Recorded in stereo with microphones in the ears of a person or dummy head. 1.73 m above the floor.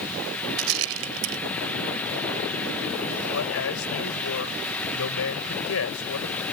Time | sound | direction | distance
0.6 | a rattle | 70° right (ahead or behind) | ?
3.3 | a man speaking | 70° left (ahead or behind) | ?